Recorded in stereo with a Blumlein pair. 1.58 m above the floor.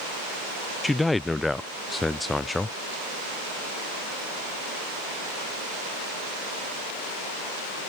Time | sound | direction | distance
0.8 | a man speaking | 10° left | ?